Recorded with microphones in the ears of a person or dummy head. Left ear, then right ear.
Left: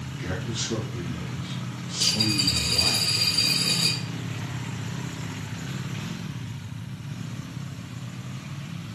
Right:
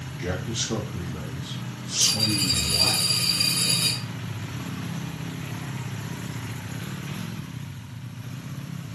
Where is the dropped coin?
5° right (ahead or behind), 1.6 m.